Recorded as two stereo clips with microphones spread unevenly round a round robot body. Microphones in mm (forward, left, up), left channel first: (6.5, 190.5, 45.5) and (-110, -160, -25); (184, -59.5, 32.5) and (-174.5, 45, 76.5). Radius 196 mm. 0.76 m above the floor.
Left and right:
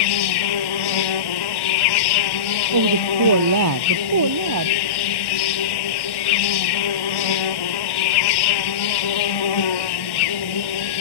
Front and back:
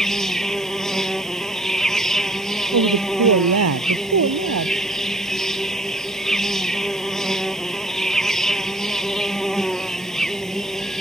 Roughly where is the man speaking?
Behind right.